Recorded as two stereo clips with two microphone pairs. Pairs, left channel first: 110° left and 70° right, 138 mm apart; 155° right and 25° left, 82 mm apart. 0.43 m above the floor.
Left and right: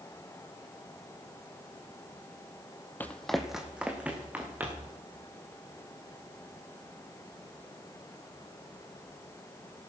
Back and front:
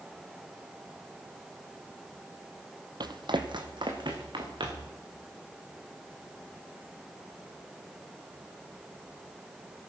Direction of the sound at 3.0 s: 35° left.